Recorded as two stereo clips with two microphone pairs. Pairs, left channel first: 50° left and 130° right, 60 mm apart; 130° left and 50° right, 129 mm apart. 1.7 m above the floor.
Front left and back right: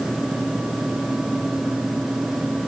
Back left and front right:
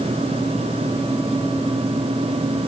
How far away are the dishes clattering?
I don't hear dishes clattering.